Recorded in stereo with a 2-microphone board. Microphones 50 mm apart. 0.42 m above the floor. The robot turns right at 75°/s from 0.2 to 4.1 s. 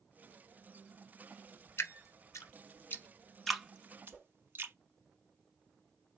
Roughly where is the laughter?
No laughter in this recording.